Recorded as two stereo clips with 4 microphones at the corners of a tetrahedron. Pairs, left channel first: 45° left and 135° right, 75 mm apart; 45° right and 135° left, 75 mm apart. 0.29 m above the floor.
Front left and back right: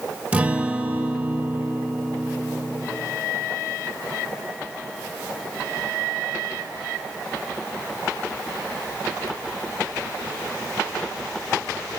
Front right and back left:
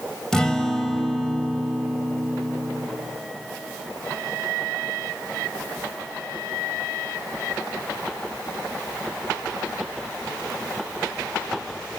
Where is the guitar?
110° right, 1.0 m.